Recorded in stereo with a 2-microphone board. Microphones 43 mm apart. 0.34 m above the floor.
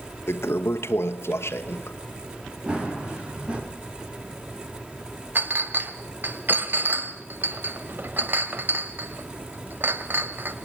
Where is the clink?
45° right (ahead or behind), 1.3 m.